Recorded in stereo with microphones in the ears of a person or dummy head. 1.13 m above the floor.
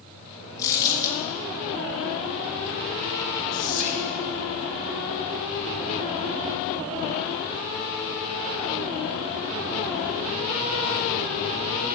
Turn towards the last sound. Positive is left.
turn(degrees=40)  # may be behind; listen again after turning